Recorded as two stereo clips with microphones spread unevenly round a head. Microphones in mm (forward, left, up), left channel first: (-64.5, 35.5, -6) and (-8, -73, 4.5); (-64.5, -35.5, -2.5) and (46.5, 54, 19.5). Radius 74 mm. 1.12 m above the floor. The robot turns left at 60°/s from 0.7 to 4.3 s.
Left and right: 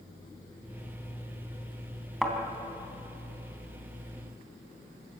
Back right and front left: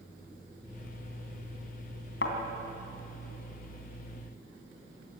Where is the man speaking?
No man speaking in this recording.